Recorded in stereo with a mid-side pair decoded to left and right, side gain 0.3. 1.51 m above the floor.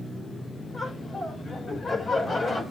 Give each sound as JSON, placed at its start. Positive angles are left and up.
{"t": 0.7, "sound": "laughter", "azimuth_deg": 55, "distance_m": 5.5}